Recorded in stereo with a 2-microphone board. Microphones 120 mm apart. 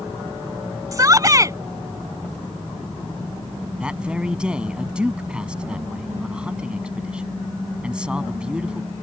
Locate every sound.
0.9 s a shout: 30° right (ahead or behind)
3.8 s a man speaking: 10° right (ahead or behind)